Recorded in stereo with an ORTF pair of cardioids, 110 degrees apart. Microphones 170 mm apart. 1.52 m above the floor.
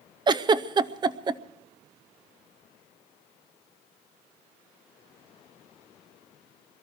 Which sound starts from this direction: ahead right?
A giggle, at 0.3 s.